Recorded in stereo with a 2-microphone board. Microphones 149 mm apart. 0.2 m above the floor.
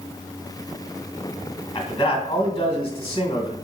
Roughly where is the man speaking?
Left.